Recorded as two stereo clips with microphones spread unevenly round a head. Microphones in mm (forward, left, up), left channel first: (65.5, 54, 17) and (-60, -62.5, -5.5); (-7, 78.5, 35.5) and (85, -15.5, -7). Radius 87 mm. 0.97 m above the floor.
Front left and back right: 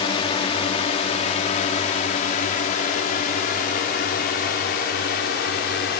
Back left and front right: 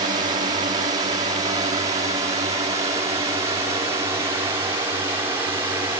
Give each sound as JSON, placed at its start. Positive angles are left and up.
{"t": 0.0, "sound": "a drone", "azimuth_deg": -15}